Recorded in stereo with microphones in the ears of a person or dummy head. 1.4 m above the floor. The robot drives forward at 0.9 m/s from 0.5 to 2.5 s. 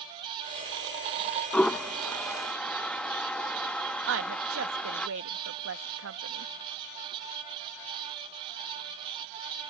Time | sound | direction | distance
1.5 | a toilet flushing | 5° left (ahead or behind) | ?
4.1 | a woman speaking | 70° right (ahead or behind) | ?